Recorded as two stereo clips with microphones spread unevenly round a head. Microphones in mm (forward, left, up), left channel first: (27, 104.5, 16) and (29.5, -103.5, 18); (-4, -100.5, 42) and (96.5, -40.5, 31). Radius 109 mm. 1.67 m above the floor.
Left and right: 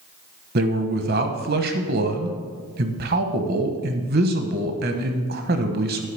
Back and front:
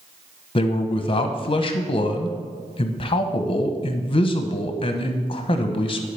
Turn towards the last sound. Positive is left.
turn(degrees=-125)